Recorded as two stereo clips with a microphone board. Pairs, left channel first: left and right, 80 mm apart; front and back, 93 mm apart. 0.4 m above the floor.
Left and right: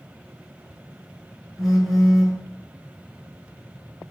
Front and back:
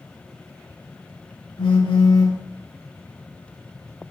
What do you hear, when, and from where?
1.6 s a phone buzzing: straight ahead, 1.3 m